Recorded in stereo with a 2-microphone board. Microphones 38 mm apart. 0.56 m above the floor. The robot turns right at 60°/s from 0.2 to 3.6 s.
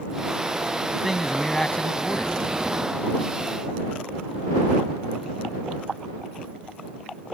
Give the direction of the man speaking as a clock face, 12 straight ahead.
1 o'clock.